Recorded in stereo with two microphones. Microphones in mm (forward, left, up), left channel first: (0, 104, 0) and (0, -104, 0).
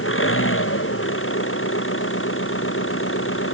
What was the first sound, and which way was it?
An engine running, 85° left.